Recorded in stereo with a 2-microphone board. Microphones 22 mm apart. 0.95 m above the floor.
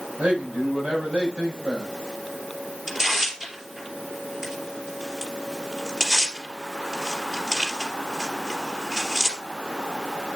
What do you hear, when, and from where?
0.2 s a man speaking: 75° right (ahead or behind), 7 m
2.9 s tearing paper: 15° right (ahead or behind), 3 m